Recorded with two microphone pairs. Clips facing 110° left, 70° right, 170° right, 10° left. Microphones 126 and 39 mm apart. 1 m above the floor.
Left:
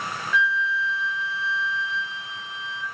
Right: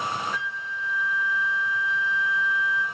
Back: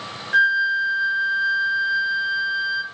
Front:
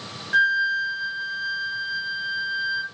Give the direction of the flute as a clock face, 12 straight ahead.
3 o'clock.